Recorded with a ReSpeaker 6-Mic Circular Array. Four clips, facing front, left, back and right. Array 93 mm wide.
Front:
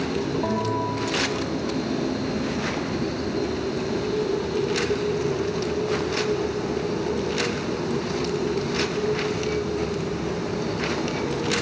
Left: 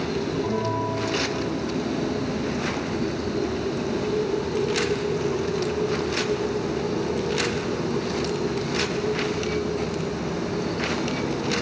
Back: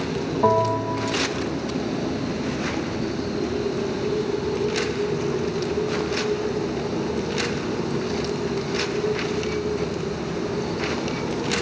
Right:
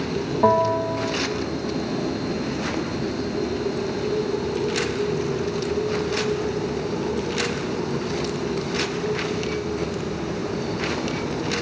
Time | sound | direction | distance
0.4 | a bell | 115° right | 4 m